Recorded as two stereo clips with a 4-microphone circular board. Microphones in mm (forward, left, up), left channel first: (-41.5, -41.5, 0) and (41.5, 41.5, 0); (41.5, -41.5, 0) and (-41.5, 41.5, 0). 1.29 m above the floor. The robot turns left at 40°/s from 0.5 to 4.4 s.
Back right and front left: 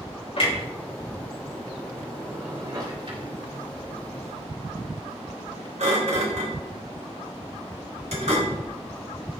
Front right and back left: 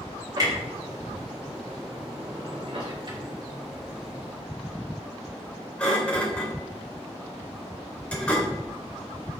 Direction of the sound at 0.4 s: 170° right.